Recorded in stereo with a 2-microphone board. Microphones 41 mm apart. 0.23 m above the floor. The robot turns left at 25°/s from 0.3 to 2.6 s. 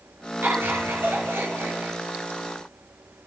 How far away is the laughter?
About 3.5 m.